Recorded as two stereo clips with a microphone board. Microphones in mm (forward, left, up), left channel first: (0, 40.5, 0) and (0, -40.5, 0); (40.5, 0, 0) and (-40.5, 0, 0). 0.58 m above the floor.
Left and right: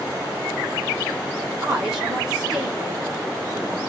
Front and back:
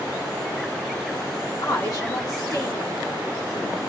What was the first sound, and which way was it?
A woman speaking, 5° right.